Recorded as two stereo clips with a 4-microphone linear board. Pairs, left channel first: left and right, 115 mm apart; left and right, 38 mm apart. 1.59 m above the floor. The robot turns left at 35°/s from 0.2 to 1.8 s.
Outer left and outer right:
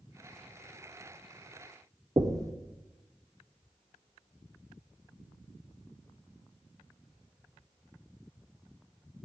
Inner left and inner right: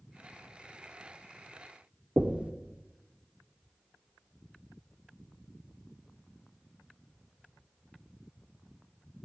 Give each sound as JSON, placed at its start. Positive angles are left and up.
{"t": 2.2, "sound": "knocking", "side_deg": -30, "distance_m": 0.6}